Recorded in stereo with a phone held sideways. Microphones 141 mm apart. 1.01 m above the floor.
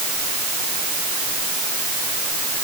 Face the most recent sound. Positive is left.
No sound to turn to.